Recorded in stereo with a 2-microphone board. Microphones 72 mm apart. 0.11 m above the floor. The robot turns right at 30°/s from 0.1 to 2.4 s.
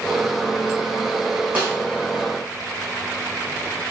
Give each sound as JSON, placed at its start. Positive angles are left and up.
{"t": 1.6, "sound": "a snare drum", "side_deg": -25, "distance_m": 2.0}